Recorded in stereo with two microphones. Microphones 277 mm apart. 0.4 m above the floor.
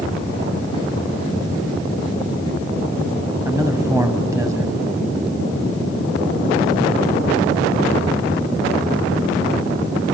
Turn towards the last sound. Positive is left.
turn(degrees=-10)  # may be behind; listen again after turning